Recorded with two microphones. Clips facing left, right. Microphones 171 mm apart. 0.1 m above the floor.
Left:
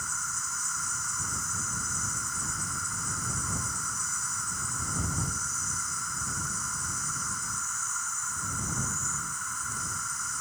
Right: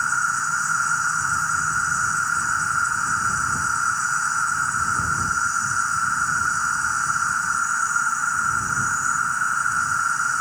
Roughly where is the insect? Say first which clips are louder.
Right 14 dB; right.